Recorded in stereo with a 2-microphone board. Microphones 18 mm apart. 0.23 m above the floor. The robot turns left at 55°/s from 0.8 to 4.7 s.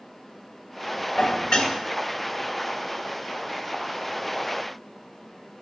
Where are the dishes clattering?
110° left, 1.8 m; by 1.7 s 75° left, 1.8 m.